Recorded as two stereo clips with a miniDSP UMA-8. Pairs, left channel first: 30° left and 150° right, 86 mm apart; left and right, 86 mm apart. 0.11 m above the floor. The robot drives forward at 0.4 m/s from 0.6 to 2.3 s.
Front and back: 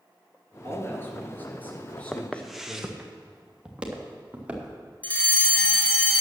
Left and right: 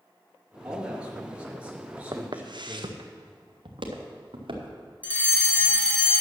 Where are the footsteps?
50° right, 1.1 m; by 4.8 s 75° right, 3 m.